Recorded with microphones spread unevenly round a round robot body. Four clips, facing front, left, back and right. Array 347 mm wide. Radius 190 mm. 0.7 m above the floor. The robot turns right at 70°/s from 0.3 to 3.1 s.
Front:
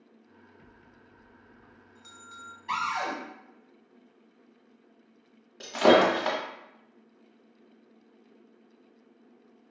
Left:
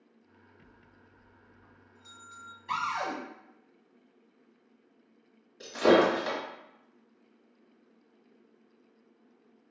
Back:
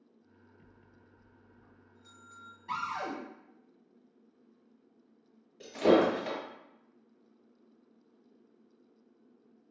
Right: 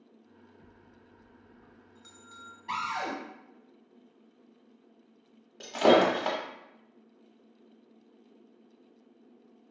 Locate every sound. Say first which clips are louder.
0.6 s a bell: right 3 dB, front 5 dB; 160° right, 1.3 m; by 2.6 s 25° right, 1.3 m
2.7 s a cupboard door: left 1 dB, front 5 dB; 125° right, 1.3 m; by 3.1 s 95° right, 1.3 m
5.6 s breaking glass: right 1 dB, front 4 dB; 45° right, 1.1 m